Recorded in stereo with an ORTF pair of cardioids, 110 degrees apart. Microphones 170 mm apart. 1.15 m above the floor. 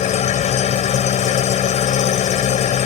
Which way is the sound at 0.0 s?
45° left.